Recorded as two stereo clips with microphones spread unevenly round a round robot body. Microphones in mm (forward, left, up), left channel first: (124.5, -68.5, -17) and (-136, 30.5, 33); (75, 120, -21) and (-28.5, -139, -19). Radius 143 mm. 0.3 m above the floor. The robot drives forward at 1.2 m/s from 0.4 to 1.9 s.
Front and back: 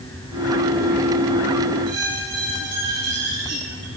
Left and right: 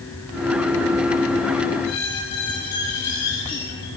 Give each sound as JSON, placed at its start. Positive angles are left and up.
{"t": 1.8, "sound": "a squeak", "azimuth_deg": 100, "distance_m": 4.5}